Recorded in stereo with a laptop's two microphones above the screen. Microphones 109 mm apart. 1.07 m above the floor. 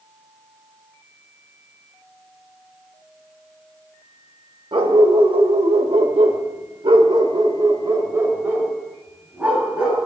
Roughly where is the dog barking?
Right.